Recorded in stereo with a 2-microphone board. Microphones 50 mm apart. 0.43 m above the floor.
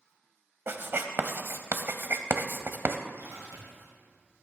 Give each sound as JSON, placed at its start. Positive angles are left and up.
{"t": 0.7, "sound": "writing", "side_deg": -50, "distance_m": 0.8}
{"t": 3.2, "sound": "a splash", "side_deg": -60, "distance_m": 3.0}